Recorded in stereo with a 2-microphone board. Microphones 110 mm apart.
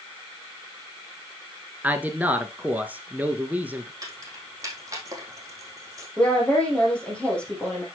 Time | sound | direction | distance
1.8 | a man speaking | 15° right (ahead or behind) | 1.2 m
4.0 | keys jangling | 35° right (ahead or behind) | 3 m
6.2 | a woman speaking | 10° left (ahead or behind) | 3.5 m